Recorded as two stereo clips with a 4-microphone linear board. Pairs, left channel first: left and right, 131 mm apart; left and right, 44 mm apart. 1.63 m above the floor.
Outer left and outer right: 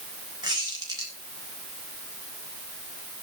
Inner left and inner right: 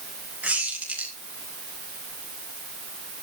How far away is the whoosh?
I don't hear a whoosh.